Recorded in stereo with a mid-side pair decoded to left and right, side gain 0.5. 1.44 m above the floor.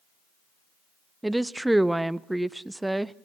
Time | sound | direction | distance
1.2 | a woman speaking | 10° right | 1.0 m